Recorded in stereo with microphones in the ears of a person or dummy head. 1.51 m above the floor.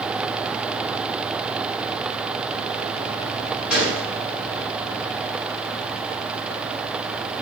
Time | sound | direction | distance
3.7 | a gunshot | 65° left (ahead or behind) | 5.5 m